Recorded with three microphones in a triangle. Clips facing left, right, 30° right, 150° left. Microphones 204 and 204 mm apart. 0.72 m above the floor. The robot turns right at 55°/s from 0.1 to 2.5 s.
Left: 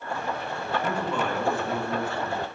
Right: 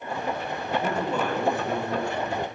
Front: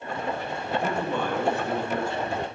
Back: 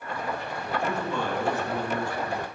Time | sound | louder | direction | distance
0.7 | a man speaking | right 2 dB, front 2 dB | 70° right | 1.3 m